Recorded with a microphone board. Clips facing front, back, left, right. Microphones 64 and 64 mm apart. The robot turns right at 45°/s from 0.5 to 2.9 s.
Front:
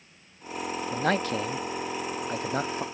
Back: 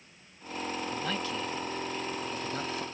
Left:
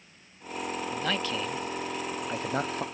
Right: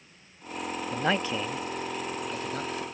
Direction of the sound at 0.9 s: 35° right.